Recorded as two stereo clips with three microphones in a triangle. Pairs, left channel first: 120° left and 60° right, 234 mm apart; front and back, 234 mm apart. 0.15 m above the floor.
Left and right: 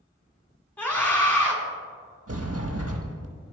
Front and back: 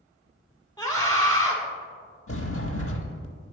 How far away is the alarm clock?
I don't hear an alarm clock.